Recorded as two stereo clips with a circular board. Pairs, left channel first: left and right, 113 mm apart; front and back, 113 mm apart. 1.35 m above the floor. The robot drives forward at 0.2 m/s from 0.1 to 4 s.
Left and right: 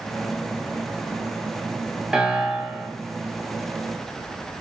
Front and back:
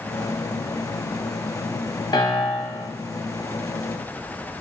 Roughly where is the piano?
Ahead.